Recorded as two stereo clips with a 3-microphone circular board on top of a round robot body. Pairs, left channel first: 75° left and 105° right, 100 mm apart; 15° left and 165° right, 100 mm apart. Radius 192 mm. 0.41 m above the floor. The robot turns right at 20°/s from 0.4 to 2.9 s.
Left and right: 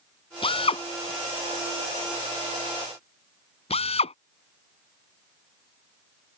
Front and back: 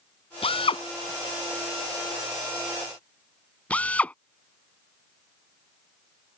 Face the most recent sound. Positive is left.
turn(degrees=90)